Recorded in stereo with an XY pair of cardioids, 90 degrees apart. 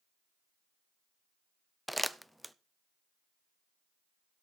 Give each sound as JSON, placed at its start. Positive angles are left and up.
{"t": 1.9, "sound": "crumpling", "azimuth_deg": 0, "distance_m": 0.7}